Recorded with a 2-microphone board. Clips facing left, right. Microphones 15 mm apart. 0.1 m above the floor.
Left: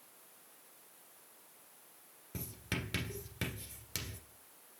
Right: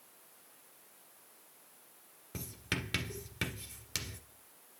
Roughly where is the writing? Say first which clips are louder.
Right 3 dB; centre.